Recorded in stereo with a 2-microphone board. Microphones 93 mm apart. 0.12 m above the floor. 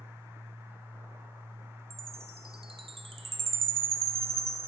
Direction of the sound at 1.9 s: 80° right.